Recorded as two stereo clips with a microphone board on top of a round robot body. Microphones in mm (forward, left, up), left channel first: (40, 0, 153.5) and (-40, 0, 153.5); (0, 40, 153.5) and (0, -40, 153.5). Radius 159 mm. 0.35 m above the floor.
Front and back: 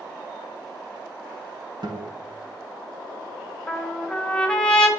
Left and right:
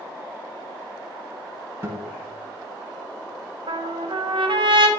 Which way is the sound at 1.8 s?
150° right.